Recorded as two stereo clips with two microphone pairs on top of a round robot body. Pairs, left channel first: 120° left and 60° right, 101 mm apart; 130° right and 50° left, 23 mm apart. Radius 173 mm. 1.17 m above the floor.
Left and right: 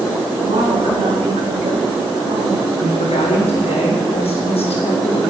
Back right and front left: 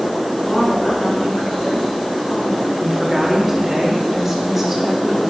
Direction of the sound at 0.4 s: 75° right.